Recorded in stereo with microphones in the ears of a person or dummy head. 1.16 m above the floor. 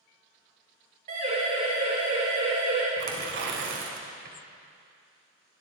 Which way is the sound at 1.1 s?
45° right (ahead or behind).